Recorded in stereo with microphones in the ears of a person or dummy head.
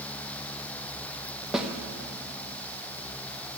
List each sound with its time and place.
1.5 s a snare drum: 5° right (ahead or behind), 1.1 m